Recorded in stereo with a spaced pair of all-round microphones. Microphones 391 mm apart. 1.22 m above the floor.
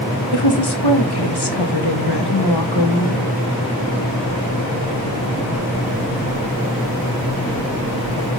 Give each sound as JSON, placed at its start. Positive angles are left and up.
{"t": 0.3, "sound": "a woman speaking", "side_deg": 80, "distance_m": 1.3}